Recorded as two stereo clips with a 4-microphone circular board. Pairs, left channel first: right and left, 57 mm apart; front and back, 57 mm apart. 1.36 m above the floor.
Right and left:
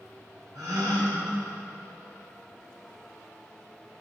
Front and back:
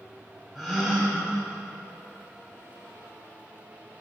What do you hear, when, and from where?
0.6 s a gasp: 90° left, 3 m